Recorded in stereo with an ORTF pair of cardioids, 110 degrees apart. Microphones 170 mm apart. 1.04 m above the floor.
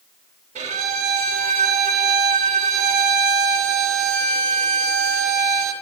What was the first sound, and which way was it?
A violin, 45° right.